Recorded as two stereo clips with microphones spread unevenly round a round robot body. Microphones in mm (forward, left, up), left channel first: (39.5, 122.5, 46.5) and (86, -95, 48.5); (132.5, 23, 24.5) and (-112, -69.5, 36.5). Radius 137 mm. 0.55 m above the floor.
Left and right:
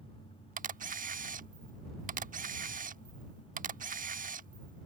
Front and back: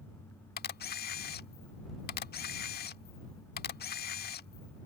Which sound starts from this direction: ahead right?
A camera shutter, at 0.6 s.